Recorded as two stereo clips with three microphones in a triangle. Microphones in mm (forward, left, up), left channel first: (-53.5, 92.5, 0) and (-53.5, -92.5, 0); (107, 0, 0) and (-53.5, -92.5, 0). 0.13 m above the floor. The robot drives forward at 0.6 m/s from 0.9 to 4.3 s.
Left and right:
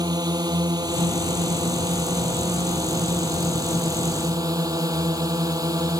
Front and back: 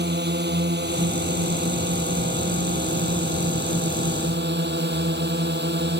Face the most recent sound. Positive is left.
turn(degrees=-160)